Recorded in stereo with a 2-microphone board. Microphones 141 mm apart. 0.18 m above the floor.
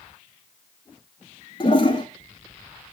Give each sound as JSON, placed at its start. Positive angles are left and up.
{"t": 1.6, "sound": "a toilet flushing", "side_deg": 35, "distance_m": 0.7}